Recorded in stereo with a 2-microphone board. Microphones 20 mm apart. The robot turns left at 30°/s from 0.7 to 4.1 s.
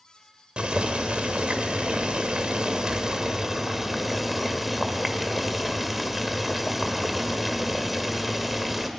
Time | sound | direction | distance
0.6 | boiling | 65° right | 1.6 m